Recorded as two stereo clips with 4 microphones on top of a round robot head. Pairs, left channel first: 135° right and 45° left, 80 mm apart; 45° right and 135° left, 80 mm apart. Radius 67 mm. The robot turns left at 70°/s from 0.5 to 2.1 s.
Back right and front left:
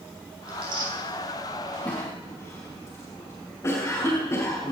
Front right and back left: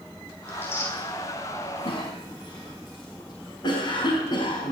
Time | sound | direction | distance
0.5 | tearing paper | 35° left | 10 m
1.9 | a cough | 60° right | 5 m